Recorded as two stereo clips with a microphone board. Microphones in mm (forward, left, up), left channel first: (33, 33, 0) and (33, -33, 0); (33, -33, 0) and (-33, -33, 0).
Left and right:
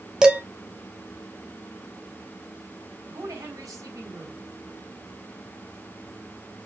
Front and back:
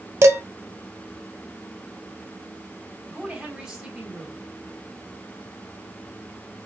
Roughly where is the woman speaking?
Right.